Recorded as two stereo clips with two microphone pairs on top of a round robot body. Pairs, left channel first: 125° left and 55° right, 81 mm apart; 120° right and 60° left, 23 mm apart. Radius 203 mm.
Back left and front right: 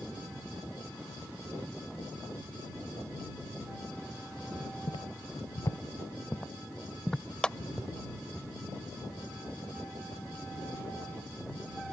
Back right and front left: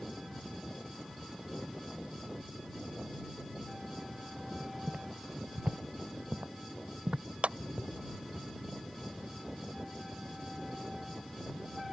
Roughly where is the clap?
Ahead left.